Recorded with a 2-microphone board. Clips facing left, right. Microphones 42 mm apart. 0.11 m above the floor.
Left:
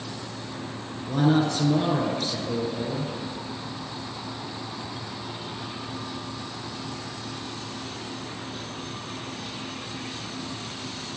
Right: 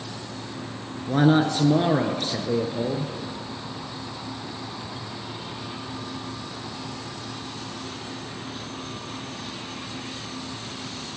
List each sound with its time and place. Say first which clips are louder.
1.1 s a man speaking: right 3 dB; 40° right (ahead or behind), 1.3 m